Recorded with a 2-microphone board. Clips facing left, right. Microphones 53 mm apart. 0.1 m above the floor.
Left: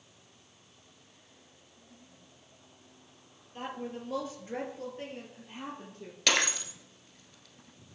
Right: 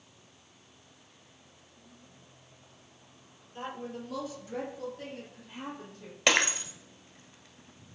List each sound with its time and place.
3.5 s a woman speaking: 25° left (ahead or behind), 2 m; by 6.2 s 30° left (ahead or behind), 3 m
6.3 s breaking glass: 20° right (ahead or behind), 1.1 m